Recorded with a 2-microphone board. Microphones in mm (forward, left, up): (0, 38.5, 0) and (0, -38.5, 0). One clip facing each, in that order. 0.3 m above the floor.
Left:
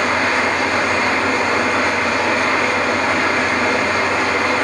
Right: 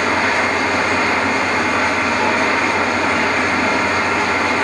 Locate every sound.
0.0 s an engine running: 45° left (ahead or behind), 1.6 m